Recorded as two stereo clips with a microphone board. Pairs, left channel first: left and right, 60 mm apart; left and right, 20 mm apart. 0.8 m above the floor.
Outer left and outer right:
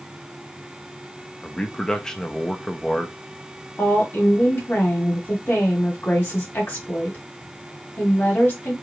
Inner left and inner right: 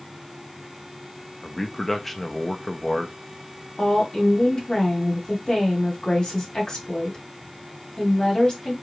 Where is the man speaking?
10° left (ahead or behind), 0.5 m.